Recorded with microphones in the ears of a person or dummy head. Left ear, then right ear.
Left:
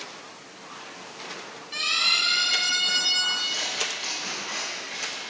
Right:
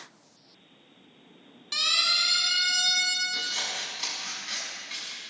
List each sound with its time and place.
1.7 s a siren: 55° right (ahead or behind), 4.5 m
3.3 s scissors: 30° right (ahead or behind), 5.5 m